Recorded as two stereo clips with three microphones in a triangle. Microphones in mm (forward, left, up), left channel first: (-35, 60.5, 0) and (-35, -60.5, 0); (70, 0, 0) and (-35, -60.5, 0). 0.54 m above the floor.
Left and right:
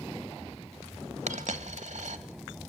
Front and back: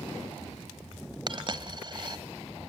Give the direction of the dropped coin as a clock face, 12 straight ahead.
3 o'clock.